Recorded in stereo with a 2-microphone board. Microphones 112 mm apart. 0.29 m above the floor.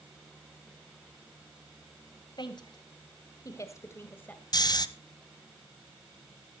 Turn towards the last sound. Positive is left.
turn(degrees=35)  # may be behind; listen again after turning